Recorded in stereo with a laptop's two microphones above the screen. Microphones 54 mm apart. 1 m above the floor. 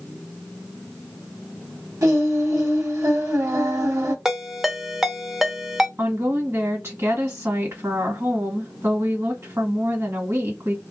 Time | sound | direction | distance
2.0 | singing | 80° right | 1.2 m
4.2 | a ringtone | 10° right (ahead or behind) | 0.7 m
6.0 | a woman speaking | 50° right (ahead or behind) | 1.7 m